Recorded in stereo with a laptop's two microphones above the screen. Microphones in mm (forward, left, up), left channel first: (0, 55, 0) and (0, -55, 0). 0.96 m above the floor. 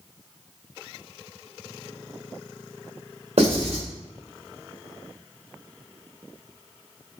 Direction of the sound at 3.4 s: 75° right (ahead or behind).